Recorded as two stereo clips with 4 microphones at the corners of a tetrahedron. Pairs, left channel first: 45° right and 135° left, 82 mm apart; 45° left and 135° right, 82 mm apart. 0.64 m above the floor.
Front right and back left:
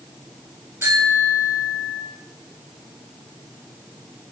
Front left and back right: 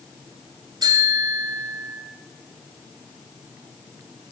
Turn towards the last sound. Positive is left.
turn(degrees=-165)